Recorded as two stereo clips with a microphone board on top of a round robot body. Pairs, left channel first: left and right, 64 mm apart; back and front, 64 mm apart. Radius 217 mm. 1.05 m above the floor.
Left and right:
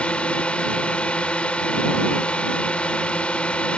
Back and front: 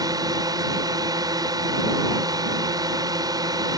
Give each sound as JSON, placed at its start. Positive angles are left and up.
{"t": 0.0, "sound": "a drone", "azimuth_deg": 20}